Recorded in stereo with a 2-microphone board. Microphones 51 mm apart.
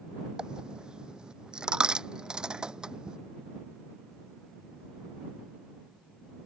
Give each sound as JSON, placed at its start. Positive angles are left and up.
{"t": 0.4, "sound": "a dropped coin", "side_deg": -15}